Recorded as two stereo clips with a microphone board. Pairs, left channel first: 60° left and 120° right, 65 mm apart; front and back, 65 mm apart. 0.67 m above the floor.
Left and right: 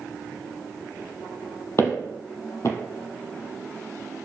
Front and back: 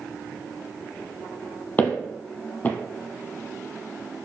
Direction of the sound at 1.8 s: 45° left.